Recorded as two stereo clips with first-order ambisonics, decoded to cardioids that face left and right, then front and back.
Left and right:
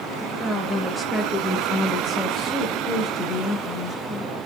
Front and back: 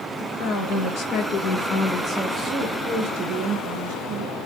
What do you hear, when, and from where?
0.2 s a woman speaking: 5° right, 1.1 m; by 4.4 s 150° left, 1.3 m